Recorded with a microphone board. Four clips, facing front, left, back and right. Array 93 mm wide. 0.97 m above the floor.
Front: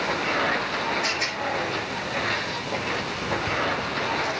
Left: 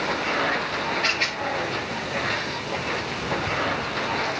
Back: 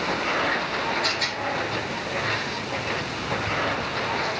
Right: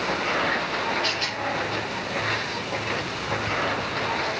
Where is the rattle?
70° left, 5 m.